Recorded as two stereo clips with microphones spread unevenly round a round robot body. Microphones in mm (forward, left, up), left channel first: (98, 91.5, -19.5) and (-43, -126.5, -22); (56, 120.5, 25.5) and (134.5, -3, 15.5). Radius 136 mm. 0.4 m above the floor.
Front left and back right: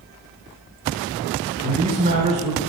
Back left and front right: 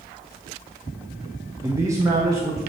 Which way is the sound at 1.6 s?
90° right.